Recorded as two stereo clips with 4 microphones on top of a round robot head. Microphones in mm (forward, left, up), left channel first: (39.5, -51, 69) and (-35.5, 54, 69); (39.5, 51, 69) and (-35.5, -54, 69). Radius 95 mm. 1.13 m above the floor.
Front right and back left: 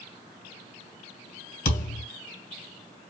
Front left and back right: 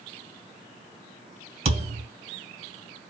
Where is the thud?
80° right, 2.5 m.